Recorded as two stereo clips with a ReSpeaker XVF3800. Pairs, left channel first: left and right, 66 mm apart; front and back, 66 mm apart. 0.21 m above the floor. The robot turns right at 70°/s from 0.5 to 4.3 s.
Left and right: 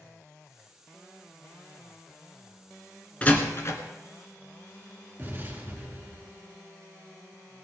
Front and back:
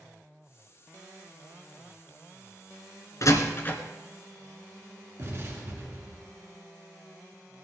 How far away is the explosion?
About 3 m.